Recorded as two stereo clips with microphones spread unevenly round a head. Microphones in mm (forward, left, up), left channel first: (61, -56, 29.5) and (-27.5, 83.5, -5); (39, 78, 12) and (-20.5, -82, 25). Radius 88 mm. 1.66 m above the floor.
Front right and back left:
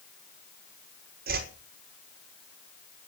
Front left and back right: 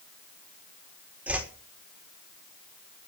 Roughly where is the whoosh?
Behind.